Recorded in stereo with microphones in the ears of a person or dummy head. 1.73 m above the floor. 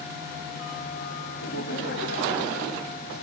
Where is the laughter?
65° left (ahead or behind), 3 m.